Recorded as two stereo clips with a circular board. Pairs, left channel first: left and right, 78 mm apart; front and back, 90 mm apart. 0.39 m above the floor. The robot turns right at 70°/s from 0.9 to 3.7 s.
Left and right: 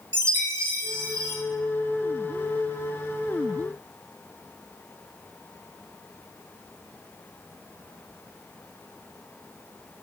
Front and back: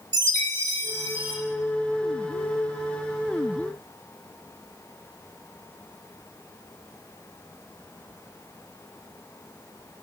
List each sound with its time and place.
0.1 s a chime: 140° right, 1.5 m; by 1.4 s 110° right, 1.5 m